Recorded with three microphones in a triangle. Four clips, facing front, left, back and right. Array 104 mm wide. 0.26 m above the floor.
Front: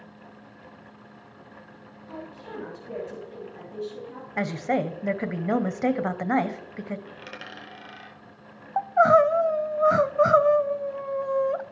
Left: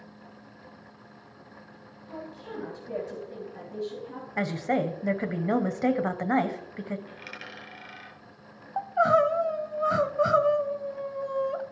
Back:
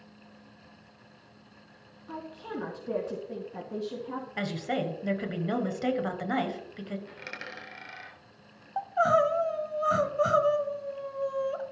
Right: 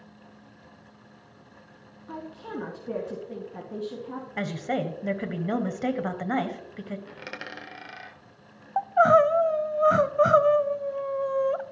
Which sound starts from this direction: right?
A dropped coin, at 7.1 s.